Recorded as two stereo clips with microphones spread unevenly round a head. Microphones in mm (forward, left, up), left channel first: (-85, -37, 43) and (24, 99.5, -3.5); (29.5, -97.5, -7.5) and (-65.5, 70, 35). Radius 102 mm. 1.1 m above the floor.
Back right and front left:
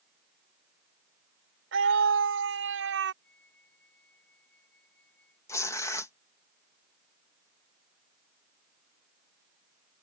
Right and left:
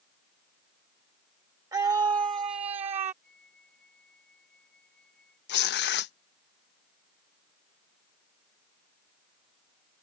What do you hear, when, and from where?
1.7 s a scream: 45° left; by 3.1 s 55° left
3.2 s a flute: 145° right
5.5 s tearing paper: 45° right